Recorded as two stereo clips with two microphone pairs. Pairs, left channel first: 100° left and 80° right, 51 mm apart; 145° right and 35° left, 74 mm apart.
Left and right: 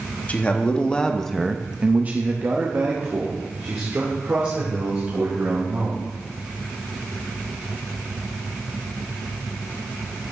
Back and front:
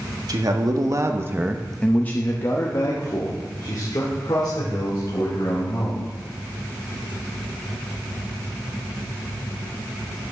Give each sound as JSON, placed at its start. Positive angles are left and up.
{"t": 0.3, "sound": "a man speaking", "azimuth_deg": 40, "distance_m": 1.5}